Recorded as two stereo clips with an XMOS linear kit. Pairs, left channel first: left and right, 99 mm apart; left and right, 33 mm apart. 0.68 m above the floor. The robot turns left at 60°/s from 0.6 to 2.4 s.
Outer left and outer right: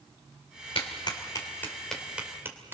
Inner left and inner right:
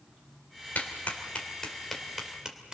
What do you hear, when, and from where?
0.8 s a clap: 65° left (ahead or behind), 2.5 m; by 2.7 s 25° right (ahead or behind), 2.5 m